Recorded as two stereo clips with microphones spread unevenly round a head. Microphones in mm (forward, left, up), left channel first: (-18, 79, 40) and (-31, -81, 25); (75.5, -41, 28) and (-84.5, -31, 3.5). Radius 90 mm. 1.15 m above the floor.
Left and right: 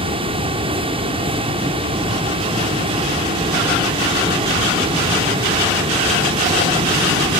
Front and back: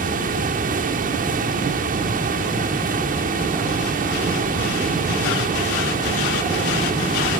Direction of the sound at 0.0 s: 150° right.